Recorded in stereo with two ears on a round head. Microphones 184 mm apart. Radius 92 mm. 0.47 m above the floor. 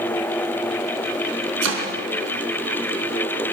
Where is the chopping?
70° right (ahead or behind), 4 m.